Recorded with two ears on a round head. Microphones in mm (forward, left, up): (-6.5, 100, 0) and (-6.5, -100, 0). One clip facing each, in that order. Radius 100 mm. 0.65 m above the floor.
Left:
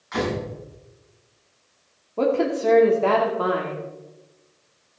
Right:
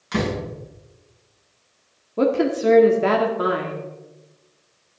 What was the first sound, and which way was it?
A door slam, 45° right (ahead or behind).